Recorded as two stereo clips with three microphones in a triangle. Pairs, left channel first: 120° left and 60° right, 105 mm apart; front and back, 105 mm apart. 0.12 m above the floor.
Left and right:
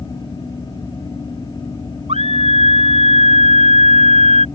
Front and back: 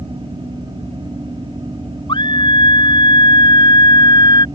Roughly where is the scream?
Ahead right.